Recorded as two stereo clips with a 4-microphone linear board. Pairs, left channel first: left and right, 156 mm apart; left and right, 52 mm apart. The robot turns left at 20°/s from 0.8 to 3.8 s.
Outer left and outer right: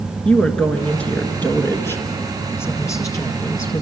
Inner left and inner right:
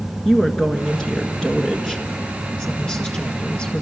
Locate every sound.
0.2 s a woman speaking: 5° left (ahead or behind), 1.6 m; by 3.8 s 20° left (ahead or behind), 1.6 m